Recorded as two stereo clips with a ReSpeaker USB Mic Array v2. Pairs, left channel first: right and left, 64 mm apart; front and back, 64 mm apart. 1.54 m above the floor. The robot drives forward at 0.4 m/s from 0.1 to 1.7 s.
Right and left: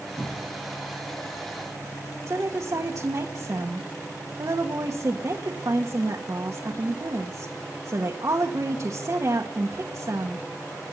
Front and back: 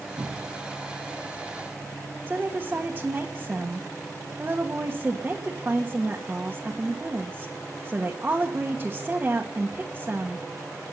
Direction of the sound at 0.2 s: 145° right.